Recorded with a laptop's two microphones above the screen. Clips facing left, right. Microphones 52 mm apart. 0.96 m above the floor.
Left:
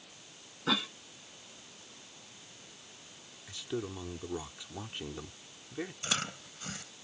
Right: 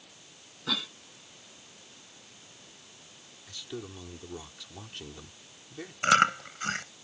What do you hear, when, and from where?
0.7 s a cough: 20° left (ahead or behind)
3.5 s a man speaking: 20° left (ahead or behind)
6.0 s chewing: 70° right (ahead or behind)